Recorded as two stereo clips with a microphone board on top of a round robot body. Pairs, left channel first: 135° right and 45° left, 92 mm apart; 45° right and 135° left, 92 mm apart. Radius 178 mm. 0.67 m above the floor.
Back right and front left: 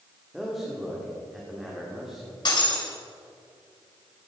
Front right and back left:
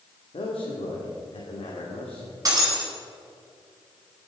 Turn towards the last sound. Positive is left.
turn(degrees=-175)